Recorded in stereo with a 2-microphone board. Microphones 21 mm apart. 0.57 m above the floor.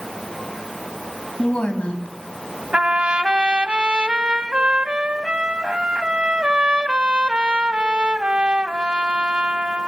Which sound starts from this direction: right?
A trumpet, at 2.7 s.